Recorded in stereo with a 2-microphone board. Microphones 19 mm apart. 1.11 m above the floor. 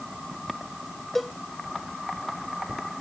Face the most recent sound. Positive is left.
turn(degrees=5)  # may be behind; listen again after turning